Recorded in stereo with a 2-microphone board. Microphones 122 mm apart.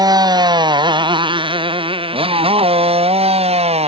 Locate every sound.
0.0 s a motorcycle: 35° right (ahead or behind); by 3.9 s 55° right (ahead or behind)